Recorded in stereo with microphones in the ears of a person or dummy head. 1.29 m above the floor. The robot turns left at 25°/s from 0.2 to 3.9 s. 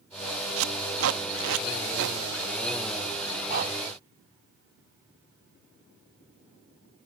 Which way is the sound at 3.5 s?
50° right (ahead or behind).